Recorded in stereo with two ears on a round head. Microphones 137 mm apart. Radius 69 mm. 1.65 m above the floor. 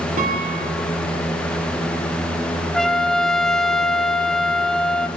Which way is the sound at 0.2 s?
50° right (ahead or behind).